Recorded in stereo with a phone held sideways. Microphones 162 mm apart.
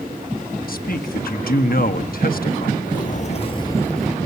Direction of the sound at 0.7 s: 65° left (ahead or behind).